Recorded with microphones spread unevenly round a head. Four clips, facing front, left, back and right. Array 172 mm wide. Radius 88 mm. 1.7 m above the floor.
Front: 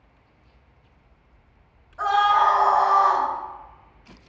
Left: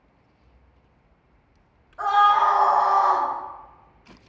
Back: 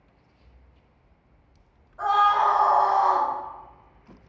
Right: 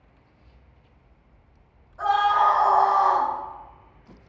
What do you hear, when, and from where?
2.0 s a scream: 55° left, 0.6 m; by 3.3 s 65° left, 1.1 m